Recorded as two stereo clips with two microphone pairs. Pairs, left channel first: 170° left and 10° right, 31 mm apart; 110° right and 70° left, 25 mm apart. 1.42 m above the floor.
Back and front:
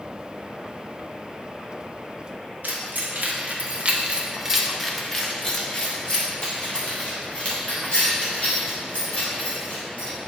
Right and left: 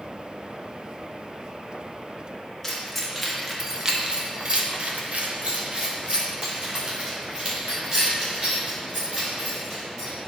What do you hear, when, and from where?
2.6 s keys jangling: 25° right, 1.3 m; by 10.1 s 120° left, 4 m